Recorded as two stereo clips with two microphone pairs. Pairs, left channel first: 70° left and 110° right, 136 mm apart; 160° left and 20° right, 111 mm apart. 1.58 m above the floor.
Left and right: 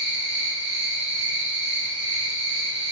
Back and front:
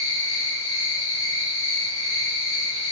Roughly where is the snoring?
I don't hear snoring.